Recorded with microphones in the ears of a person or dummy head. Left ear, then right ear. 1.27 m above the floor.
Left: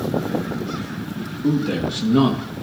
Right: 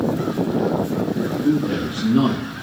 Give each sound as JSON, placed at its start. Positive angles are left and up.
{"t": 1.4, "sound": "a man speaking", "side_deg": 65, "distance_m": 1.3}